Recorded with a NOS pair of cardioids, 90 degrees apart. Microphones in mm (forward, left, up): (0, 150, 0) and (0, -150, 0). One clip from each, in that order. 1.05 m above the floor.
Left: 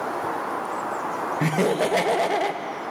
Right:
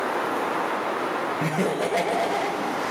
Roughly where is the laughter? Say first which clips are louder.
Left 2 dB; ahead.